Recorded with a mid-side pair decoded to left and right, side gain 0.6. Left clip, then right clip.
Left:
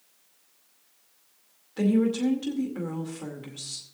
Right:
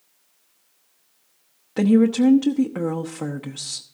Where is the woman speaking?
65° right, 0.9 m.